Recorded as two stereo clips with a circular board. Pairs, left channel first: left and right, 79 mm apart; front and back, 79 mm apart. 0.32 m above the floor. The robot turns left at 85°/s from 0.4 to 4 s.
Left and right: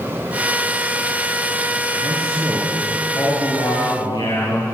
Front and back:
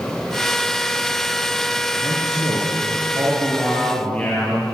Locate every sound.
2.0 s a man speaking: 120° right, 6.5 m; by 4.8 s 70° left, 6.5 m